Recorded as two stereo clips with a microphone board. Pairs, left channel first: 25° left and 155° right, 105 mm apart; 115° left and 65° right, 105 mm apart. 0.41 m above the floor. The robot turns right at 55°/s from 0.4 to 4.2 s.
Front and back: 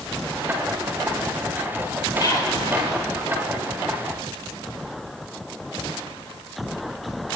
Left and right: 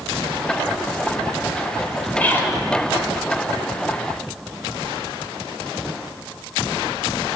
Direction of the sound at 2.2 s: 45° left.